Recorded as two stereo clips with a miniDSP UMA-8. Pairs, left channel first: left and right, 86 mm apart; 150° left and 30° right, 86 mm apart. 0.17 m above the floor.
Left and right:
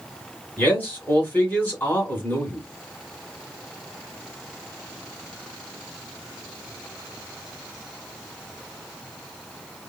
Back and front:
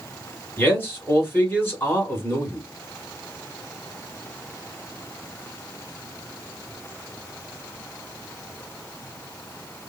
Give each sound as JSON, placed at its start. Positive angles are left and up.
{"t": 0.6, "sound": "a man speaking", "azimuth_deg": 130, "distance_m": 1.6}